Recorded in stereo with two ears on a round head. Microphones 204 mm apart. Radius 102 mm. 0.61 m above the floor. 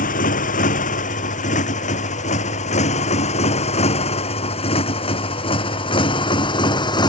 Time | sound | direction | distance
0.0 | a motorcycle | 35° left (ahead or behind) | ?